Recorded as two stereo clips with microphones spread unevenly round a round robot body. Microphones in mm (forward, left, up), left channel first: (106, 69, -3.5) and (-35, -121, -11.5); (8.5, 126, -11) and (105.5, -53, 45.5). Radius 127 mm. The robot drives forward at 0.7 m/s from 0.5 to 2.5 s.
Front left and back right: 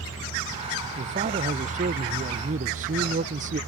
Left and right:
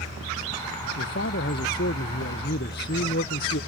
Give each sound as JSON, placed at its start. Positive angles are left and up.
{"t": 1.0, "sound": "a man speaking", "azimuth_deg": 170}